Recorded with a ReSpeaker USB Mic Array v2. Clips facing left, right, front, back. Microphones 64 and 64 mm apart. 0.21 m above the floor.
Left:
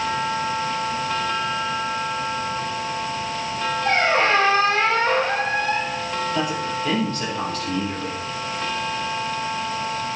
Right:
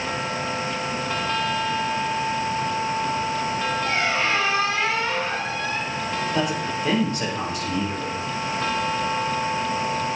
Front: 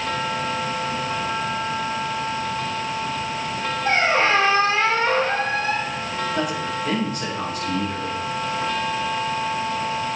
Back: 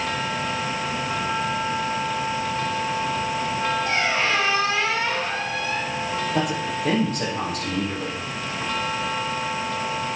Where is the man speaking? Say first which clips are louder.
Even, even; 160° right, 5.5 m.